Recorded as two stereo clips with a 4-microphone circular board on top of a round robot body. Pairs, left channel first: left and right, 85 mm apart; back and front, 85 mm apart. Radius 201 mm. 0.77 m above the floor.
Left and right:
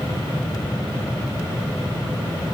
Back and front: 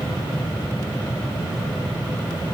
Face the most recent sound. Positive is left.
No sound to turn to.